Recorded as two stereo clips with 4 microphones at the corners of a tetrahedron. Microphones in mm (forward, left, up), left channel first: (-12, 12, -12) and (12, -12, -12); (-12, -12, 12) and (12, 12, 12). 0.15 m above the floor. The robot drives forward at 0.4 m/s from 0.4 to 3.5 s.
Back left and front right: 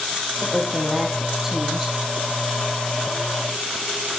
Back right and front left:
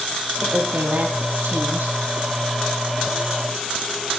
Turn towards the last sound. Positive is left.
turn(degrees=40)